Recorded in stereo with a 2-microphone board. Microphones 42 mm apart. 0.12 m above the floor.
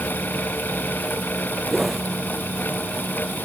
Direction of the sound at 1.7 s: 5° right (ahead or behind).